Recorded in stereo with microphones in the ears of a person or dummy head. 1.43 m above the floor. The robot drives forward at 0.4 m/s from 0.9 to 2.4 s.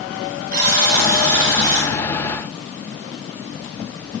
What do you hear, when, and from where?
0.5 s a buzzer: 55° right (ahead or behind), 3 m; by 1.9 s 60° right (ahead or behind), 3 m